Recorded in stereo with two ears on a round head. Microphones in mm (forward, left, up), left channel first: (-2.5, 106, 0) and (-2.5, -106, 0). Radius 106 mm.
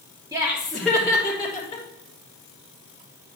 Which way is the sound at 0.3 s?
15° right (ahead or behind).